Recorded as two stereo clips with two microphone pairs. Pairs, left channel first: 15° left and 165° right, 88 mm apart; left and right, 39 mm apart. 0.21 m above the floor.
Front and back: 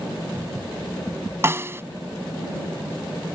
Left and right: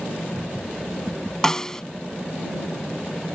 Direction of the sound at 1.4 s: 155° left.